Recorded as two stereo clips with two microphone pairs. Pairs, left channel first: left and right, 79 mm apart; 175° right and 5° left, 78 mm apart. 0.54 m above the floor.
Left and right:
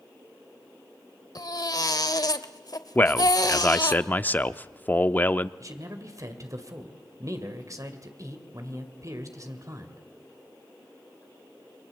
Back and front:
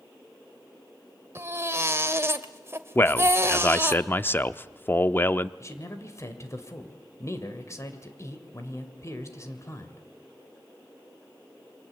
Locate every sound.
1.4 s a baby crying: 60° left, 1.2 m
3.0 s a man speaking: 140° left, 0.7 m
5.6 s a man speaking: 130° right, 2.5 m